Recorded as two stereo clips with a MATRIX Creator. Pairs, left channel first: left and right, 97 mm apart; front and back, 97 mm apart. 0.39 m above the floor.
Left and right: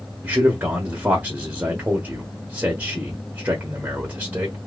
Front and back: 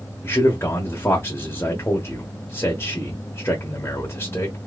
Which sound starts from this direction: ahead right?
A man speaking, at 0.2 s.